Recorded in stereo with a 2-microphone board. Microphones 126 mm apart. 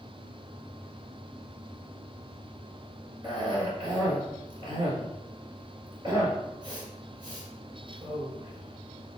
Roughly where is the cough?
Right.